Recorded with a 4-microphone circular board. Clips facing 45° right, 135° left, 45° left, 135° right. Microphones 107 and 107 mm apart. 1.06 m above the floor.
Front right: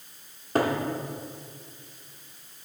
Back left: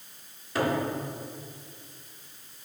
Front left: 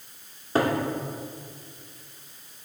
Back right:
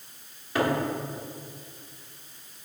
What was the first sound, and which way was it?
A cupboard door, 10° right.